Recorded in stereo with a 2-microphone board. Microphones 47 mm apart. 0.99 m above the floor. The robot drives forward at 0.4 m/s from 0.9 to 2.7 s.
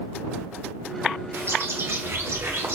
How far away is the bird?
About 0.9 m.